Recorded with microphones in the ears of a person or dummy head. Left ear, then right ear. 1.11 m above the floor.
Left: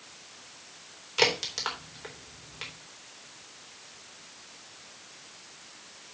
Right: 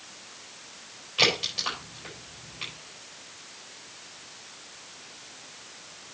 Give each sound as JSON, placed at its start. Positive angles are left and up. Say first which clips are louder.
{"t": 1.2, "sound": "a crack", "louder": "right 2 dB", "side_deg": 45, "distance_m": 4.0}